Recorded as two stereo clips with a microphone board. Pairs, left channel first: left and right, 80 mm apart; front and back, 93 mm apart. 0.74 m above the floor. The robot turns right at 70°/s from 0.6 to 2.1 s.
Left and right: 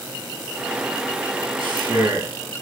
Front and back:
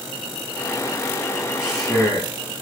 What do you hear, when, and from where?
1.6 s a man speaking: 85° right, 0.9 m; by 2.3 s 50° right, 0.9 m